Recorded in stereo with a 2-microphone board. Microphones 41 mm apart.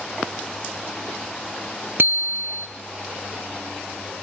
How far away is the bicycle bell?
About 2 m.